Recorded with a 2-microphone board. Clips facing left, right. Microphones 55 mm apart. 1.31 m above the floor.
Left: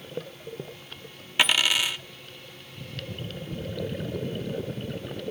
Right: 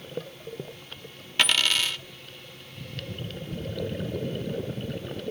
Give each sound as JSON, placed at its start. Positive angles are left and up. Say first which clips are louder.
{"t": 1.4, "sound": "a dropped coin", "louder": "left 1 dB", "side_deg": 10, "distance_m": 0.8}